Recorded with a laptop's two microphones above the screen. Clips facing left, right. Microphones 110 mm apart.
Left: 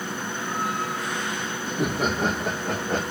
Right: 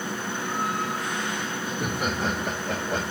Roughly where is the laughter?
Left.